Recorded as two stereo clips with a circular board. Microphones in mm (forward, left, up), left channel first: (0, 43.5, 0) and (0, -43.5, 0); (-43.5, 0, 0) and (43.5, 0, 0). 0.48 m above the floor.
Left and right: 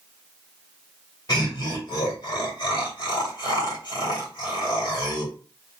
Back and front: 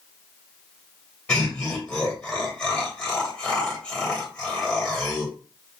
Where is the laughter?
110° left, 2 m.